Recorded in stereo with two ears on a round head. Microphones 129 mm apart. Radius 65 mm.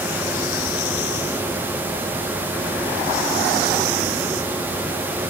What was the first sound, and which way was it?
Only background noise.